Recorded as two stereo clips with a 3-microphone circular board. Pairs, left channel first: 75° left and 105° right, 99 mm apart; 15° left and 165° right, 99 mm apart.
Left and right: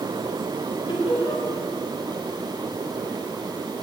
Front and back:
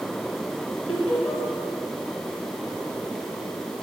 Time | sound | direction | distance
0.9 | laughter | 95° left | 3.5 m